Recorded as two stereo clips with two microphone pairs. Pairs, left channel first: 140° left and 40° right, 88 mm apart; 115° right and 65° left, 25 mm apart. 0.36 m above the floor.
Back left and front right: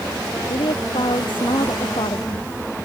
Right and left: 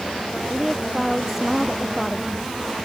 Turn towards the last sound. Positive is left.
turn(degrees=140)